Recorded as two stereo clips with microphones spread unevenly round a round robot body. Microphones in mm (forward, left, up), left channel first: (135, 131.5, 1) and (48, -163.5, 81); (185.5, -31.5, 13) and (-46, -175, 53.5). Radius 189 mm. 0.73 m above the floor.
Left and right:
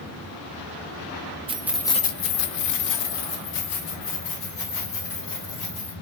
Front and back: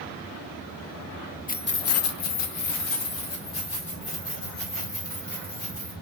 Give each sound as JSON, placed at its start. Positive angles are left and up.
{"t": 1.5, "sound": "keys jangling", "azimuth_deg": -25, "distance_m": 0.7}